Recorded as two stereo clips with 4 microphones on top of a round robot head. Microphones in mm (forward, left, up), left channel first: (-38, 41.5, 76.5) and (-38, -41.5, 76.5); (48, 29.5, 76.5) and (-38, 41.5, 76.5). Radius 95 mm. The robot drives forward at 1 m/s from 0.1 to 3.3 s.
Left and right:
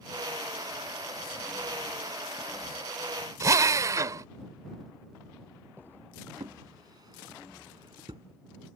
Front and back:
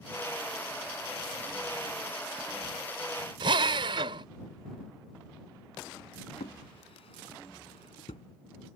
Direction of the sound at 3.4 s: 140° right.